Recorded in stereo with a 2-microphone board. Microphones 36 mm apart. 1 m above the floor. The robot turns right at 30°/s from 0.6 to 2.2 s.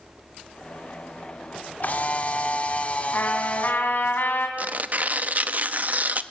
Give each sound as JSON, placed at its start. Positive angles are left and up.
{"t": 1.8, "sound": "a camera shutter", "side_deg": 50, "distance_m": 2.0}
{"t": 3.1, "sound": "a trumpet", "side_deg": 70, "distance_m": 3.0}
{"t": 4.6, "sound": "tearing paper", "side_deg": -50, "distance_m": 0.7}